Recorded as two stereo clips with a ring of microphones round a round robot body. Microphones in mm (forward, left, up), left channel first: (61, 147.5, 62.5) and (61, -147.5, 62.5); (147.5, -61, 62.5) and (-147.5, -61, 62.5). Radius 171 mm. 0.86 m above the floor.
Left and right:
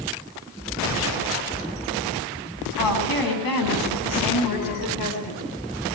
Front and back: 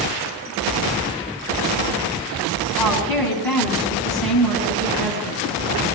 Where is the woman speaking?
85° left, 9 m; by 5.4 s 95° left, 7.5 m.